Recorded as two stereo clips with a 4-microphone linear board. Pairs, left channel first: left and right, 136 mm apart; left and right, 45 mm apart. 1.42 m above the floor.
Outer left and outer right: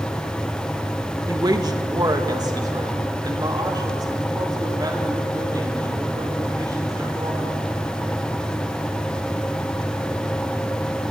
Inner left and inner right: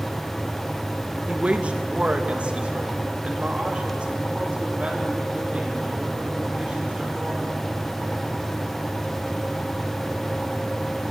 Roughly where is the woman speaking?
Right.